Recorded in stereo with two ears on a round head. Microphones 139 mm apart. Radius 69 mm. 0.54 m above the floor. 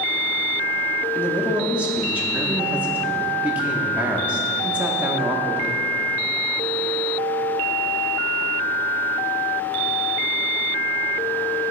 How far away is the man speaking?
About 0.6 m.